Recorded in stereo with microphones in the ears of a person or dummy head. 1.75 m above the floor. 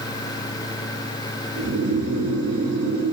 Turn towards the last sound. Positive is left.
turn(degrees=-65)  # may be behind; listen again after turning